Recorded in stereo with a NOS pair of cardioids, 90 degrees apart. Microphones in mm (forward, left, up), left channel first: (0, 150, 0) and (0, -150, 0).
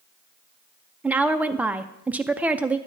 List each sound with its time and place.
1.0 s a woman speaking: 5° right, 0.5 m